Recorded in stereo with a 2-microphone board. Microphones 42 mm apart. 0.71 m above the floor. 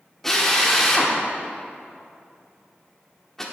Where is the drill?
10° left (ahead or behind), 1.3 m.